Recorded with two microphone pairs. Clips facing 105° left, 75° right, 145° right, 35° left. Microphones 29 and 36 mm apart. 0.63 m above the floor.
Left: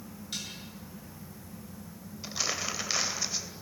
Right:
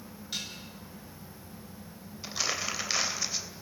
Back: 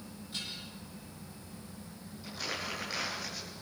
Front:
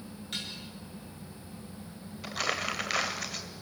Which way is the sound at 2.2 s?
10° left.